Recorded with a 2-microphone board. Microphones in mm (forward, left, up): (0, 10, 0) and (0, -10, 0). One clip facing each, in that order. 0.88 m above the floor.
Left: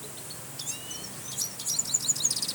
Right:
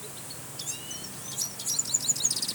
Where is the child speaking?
No child speaking in this recording.